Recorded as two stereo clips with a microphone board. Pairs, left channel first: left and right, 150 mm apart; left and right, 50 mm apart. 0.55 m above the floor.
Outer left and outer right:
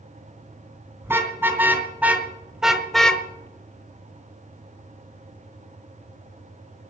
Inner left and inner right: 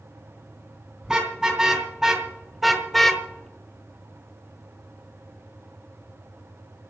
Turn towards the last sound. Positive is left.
turn(degrees=45)  # may be behind; listen again after turning